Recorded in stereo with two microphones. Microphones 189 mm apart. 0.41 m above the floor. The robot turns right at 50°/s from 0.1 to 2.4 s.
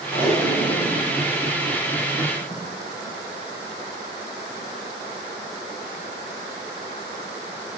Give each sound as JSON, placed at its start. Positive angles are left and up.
{"t": 0.1, "sound": "tape being pulled", "side_deg": 25, "distance_m": 4.0}